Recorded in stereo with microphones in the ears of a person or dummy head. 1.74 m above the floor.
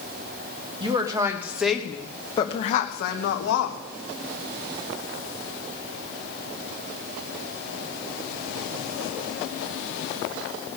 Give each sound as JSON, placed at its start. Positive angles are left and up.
{"t": 0.8, "sound": "a woman speaking", "side_deg": -25, "distance_m": 1.5}